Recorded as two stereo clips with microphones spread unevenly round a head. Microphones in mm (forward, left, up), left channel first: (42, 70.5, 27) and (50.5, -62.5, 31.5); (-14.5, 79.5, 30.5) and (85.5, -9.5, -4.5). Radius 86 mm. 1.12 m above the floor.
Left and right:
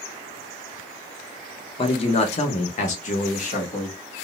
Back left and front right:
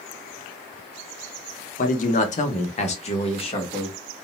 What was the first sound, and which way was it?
A man speaking, 130° left.